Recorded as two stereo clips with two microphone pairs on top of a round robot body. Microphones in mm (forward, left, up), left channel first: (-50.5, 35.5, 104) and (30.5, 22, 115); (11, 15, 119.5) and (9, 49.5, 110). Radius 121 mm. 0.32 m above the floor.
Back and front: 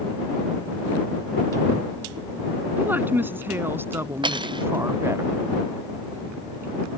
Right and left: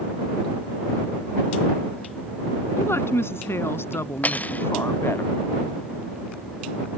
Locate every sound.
2.8 s a woman speaking: 80° right; by 5.2 s 75° right
4.2 s cutlery clinking: 35° right